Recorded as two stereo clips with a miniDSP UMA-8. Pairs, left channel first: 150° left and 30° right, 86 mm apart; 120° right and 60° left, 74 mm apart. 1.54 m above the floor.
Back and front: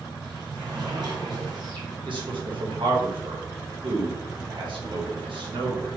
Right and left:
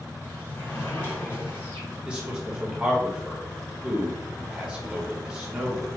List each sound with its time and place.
0.2 s a sliding door: 60° right, 1.2 m
2.1 s a man speaking: 20° right, 1.0 m